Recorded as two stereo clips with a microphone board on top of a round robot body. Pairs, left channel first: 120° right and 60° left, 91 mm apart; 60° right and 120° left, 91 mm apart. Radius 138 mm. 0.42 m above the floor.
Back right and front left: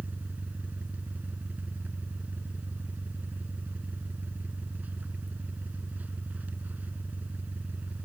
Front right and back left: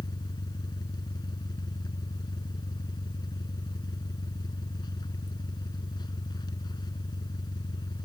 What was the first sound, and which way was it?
An engine running, 15° right.